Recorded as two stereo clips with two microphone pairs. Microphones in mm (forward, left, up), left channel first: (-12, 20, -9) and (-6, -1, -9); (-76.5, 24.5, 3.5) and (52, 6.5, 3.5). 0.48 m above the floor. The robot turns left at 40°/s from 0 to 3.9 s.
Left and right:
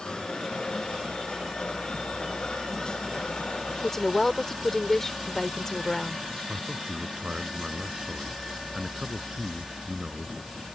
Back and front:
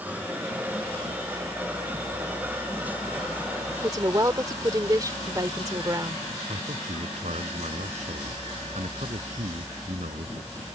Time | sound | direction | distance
3.8 | a woman speaking | 45° left | ?
6.5 | a man speaking | 25° right | ?